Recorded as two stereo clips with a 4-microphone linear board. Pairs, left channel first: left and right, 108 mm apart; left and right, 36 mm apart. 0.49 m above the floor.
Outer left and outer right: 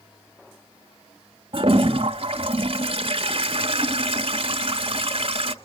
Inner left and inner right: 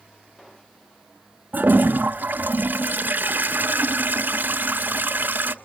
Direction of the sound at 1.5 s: 60° right (ahead or behind).